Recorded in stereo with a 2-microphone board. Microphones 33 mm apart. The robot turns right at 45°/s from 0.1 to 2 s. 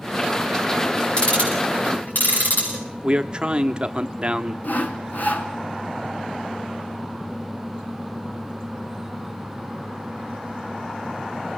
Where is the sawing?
60° left (ahead or behind), 2 m.